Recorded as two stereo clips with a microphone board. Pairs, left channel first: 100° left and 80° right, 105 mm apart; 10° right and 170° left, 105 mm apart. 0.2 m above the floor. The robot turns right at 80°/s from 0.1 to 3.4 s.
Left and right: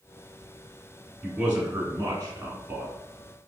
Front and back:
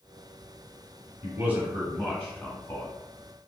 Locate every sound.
1.2 s a man speaking: 155° right, 1.5 m; by 2.9 s 20° right, 1.5 m